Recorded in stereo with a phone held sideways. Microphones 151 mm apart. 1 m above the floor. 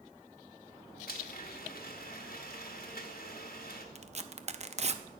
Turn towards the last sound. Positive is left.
turn(degrees=-45)  # may be behind; listen again after turning